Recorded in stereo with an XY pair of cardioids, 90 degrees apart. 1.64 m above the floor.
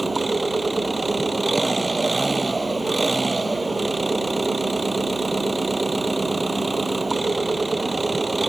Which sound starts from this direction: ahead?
An engine running, at 0.0 s.